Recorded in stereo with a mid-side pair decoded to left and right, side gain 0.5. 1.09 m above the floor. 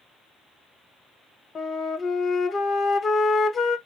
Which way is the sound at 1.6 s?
40° left.